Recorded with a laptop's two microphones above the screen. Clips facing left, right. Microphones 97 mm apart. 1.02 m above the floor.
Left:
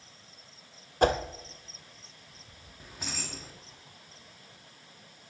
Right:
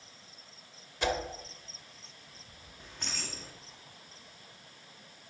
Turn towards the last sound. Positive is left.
turn(degrees=5)  # may be behind; listen again after turning